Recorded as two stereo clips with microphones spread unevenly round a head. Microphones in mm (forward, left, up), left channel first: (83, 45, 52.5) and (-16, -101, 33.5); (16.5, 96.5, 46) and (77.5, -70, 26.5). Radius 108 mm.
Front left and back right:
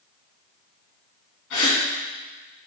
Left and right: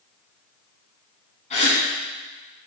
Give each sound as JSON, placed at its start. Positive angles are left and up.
{"t": 1.5, "sound": "a gasp", "azimuth_deg": 60, "distance_m": 4.0}